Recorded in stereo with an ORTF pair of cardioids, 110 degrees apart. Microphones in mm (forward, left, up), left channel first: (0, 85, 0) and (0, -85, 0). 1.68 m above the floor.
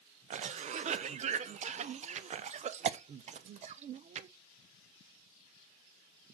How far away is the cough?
About 0.8 m.